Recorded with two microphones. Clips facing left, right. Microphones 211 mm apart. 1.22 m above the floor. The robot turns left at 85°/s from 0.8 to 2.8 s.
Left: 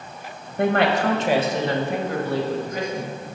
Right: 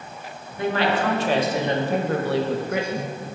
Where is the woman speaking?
55° left, 1.1 m; by 3.2 s 115° right, 1.1 m.